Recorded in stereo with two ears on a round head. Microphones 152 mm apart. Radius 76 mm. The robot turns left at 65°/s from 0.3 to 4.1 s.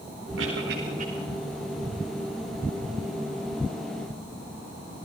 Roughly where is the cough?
Right.